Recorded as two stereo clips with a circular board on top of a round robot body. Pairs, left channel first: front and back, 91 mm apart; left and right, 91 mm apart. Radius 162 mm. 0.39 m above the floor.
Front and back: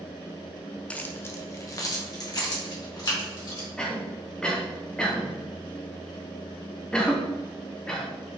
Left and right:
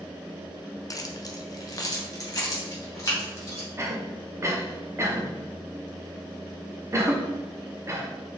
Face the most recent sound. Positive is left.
turn(degrees=-70)